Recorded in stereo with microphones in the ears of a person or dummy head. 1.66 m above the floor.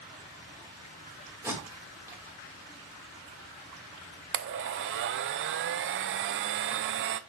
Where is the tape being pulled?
10° right (ahead or behind), 3 m.